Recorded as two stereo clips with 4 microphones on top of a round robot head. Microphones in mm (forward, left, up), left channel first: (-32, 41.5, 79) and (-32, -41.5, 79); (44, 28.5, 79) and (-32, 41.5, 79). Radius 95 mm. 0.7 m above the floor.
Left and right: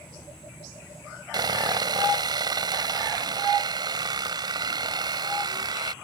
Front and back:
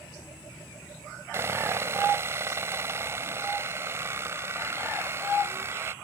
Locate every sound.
1.3 s sawing: 125° right